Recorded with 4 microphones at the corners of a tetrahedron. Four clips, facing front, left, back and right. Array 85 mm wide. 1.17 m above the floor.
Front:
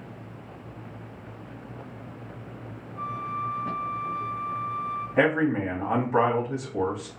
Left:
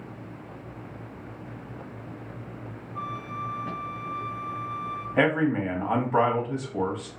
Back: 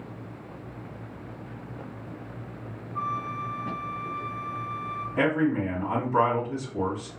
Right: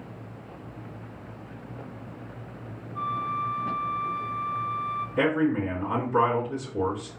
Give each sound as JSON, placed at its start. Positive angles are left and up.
{"t": 3.0, "sound": "a flute", "azimuth_deg": -155, "distance_m": 1.0}
{"t": 5.2, "sound": "a man speaking", "azimuth_deg": 55, "distance_m": 1.6}